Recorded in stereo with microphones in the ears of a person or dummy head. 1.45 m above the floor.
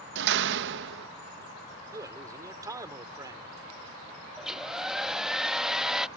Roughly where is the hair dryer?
Centre.